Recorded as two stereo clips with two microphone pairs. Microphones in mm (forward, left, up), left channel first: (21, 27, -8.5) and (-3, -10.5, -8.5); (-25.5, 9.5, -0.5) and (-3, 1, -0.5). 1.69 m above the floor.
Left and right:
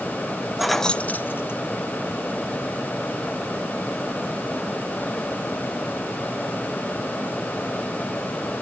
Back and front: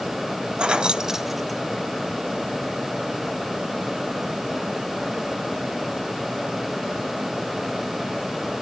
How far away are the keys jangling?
About 0.9 m.